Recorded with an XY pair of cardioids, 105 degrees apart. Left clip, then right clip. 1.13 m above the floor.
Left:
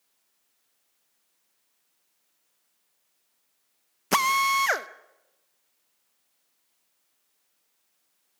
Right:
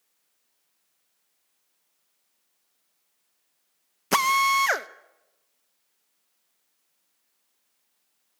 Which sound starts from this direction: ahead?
A drill, at 4.1 s.